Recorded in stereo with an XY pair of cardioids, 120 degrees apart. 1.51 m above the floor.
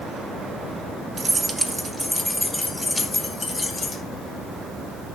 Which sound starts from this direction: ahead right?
Keys jangling, at 1.2 s.